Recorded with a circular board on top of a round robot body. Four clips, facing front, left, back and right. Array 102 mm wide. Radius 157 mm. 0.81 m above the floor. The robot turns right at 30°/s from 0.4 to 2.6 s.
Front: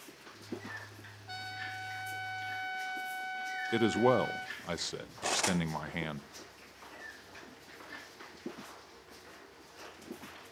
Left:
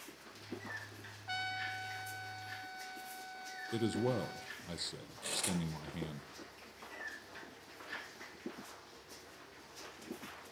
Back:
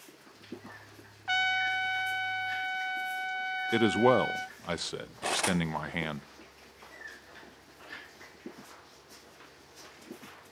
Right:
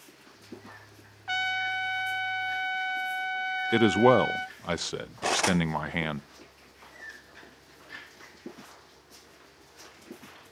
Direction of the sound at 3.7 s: 105° right.